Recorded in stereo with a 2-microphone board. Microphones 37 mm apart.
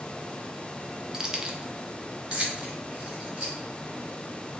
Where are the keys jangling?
15° right (ahead or behind), 0.6 m; by 3.5 s 35° right (ahead or behind), 1.8 m.